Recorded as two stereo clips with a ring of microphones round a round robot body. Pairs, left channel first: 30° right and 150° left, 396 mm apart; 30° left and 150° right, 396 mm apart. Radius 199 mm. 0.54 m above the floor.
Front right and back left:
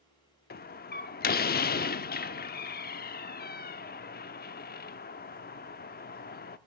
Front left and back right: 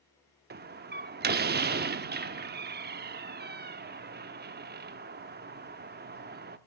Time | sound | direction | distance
0.5 | a door slam | 90° right | 0.8 m